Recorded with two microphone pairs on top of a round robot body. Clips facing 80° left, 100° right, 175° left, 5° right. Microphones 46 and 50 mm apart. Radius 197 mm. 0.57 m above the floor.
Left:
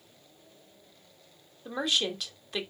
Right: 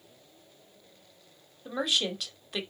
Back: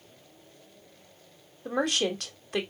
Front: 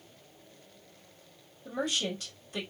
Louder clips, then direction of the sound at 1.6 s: Even, back 5 dB; 175° left.